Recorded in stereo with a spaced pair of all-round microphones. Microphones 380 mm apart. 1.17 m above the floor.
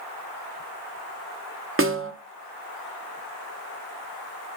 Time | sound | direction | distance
1.8 | a snare drum | 35° right (ahead or behind) | 0.5 m